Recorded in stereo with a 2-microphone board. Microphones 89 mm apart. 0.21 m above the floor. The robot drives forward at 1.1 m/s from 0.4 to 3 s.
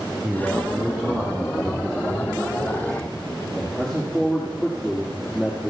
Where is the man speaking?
20° right (ahead or behind), 1.4 m; by 5.7 s 5° right (ahead or behind), 4 m.